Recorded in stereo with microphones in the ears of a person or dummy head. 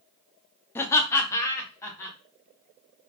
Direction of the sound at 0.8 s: 15° left (ahead or behind).